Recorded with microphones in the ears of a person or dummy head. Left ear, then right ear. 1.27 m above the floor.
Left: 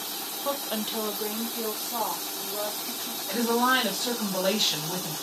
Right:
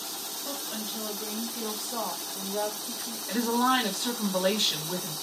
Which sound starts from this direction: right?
A woman speaking, at 3.3 s.